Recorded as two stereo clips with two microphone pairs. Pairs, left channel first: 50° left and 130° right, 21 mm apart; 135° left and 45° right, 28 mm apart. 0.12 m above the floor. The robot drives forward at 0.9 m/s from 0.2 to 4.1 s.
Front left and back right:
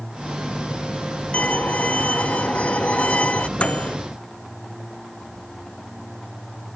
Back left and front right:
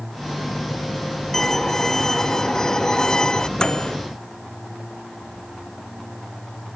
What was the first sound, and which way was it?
A violin, 55° left.